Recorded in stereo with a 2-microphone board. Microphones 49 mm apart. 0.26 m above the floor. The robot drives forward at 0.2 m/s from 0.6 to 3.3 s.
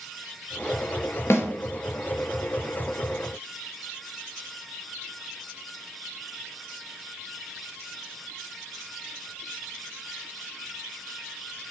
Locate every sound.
1.3 s a snare drum: 65° left (ahead or behind), 0.7 m